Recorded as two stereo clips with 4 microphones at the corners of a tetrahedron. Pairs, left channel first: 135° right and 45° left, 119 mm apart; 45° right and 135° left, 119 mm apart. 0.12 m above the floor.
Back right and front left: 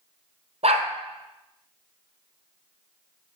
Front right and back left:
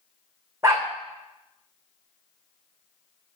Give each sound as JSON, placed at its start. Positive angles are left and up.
{"t": 0.6, "sound": "a dog barking", "azimuth_deg": 70, "distance_m": 2.0}